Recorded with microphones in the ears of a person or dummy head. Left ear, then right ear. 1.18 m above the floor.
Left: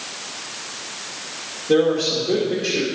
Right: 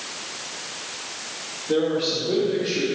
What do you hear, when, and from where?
1.7 s a man speaking: 70° left (ahead or behind), 2.5 m